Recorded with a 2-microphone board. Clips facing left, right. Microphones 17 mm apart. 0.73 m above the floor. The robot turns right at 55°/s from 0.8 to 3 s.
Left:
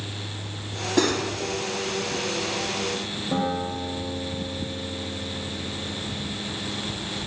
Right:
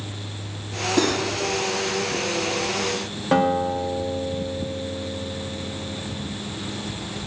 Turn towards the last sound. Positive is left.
turn(degrees=-75)  # may be behind; listen again after turning